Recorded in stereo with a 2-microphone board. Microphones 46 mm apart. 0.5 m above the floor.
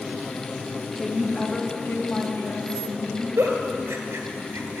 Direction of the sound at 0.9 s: Centre (ahead or behind).